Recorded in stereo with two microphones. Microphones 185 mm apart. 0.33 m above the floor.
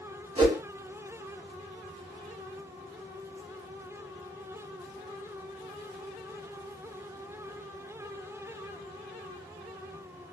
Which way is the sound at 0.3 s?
30° right (ahead or behind).